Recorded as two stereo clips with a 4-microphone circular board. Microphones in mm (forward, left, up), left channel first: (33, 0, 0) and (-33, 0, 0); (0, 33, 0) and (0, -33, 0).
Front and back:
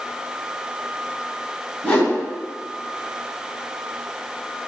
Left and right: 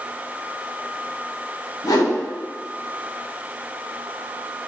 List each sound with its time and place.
1.8 s a whoosh: 70° left, 1.4 m